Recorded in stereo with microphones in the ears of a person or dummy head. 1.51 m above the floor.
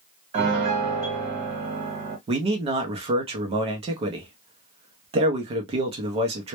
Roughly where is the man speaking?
Right.